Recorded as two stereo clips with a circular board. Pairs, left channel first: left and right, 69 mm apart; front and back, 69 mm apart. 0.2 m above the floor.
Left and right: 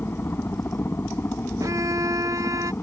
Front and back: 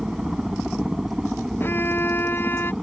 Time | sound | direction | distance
0.0 | a helicopter | 100° left | ?
1.6 | a violin | 60° right | ?